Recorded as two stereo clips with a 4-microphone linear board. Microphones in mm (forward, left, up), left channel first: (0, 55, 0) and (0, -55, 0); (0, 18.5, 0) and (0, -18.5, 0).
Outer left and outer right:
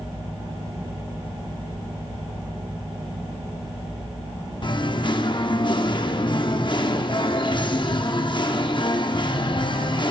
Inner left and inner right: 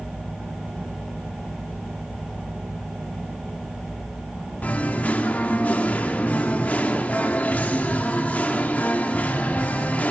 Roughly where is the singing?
Left.